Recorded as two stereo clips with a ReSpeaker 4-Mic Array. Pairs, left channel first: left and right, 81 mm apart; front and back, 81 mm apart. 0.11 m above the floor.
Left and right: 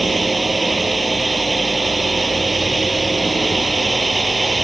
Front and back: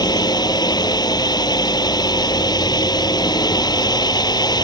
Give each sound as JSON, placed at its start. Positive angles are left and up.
{"t": 0.0, "sound": "a drone", "azimuth_deg": 0}